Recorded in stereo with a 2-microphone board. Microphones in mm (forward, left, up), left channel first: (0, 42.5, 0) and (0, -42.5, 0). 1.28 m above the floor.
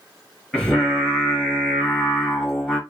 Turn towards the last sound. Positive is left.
turn(degrees=10)  # may be behind; listen again after turning